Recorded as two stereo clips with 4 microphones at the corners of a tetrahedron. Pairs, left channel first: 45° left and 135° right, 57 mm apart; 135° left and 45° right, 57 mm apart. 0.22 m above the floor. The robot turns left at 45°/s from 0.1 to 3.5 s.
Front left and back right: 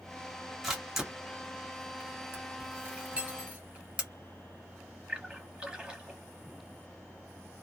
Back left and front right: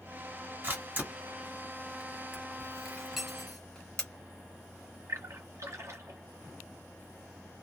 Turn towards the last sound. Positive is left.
turn(degrees=-65)